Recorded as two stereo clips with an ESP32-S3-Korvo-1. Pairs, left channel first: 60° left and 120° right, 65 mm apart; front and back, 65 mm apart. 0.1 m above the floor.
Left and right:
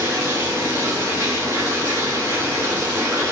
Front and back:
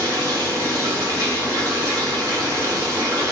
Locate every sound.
0.0 s running water: 170° right, 5 m